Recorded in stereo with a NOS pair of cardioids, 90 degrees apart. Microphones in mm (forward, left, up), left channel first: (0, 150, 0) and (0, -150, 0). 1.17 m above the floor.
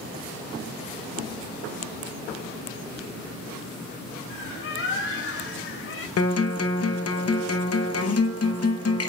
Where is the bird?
45° left, 2.5 m.